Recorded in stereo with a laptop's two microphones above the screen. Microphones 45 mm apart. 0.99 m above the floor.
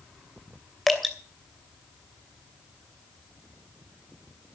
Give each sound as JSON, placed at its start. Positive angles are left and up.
{"t": 0.9, "sound": "dripping", "side_deg": 5, "distance_m": 2.5}